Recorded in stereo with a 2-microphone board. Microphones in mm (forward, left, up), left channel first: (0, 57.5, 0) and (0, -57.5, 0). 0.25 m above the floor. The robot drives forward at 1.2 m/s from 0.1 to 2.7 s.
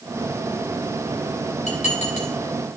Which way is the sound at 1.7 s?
70° left (ahead or behind).